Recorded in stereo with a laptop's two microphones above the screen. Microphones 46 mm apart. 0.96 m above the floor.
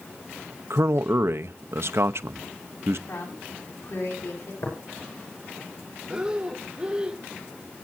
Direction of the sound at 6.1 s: 20° right (ahead or behind).